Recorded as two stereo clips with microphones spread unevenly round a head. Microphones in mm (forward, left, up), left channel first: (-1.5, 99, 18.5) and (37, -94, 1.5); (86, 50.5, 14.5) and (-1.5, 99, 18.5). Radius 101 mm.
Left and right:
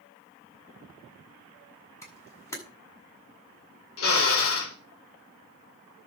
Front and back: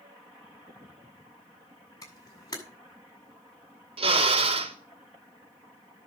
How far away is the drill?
About 3 m.